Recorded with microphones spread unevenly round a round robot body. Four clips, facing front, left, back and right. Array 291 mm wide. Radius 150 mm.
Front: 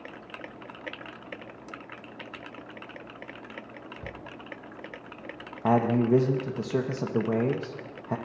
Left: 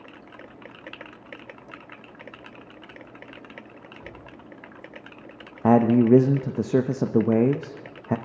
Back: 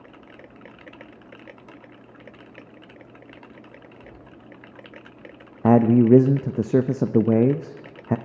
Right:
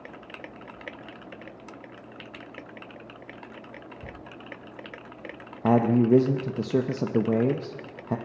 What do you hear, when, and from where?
4.0 s a cupboard door: 30° right, 2.5 m
5.6 s a man speaking: 150° left, 0.6 m